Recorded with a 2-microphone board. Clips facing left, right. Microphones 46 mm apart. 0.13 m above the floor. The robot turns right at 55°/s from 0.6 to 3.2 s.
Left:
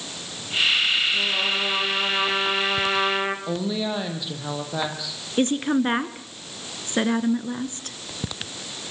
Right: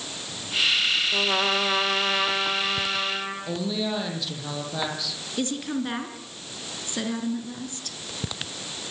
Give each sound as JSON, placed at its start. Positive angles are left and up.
{"t": 1.1, "sound": "a trumpet", "azimuth_deg": -60, "distance_m": 5.0}
{"t": 3.5, "sound": "a woman speaking", "side_deg": 15, "distance_m": 6.0}
{"t": 5.4, "sound": "a woman speaking", "side_deg": 40, "distance_m": 1.9}